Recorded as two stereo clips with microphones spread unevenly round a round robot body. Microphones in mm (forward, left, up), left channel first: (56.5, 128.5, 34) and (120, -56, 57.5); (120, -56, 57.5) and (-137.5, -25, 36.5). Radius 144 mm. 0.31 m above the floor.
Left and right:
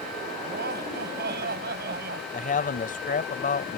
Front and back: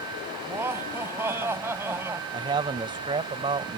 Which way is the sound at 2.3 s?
110° left.